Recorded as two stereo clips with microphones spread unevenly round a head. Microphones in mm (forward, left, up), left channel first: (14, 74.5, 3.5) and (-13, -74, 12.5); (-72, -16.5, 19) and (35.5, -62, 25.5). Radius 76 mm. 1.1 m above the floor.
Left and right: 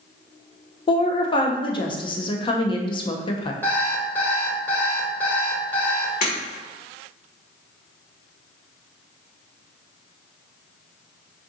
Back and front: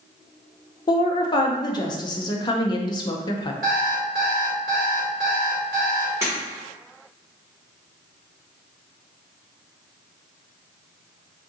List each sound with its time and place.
0.9 s a woman speaking: 120° left, 0.6 m
3.6 s an alarm clock: straight ahead, 1.3 m
6.2 s breaking glass: 45° left, 1.3 m